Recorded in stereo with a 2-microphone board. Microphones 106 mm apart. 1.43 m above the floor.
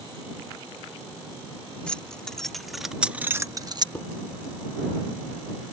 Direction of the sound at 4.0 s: 15° left (ahead or behind).